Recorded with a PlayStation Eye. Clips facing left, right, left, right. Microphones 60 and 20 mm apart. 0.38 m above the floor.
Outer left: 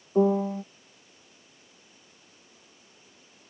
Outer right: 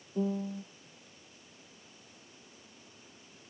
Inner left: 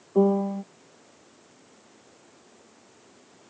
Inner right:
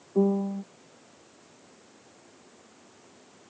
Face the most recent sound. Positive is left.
turn(degrees=80)